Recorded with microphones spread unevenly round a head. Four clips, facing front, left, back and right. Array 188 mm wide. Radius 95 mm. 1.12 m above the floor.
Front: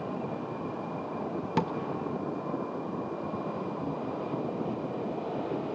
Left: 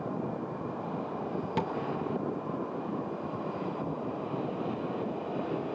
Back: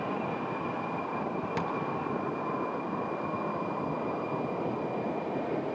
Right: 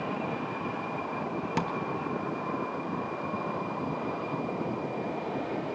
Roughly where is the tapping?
Ahead.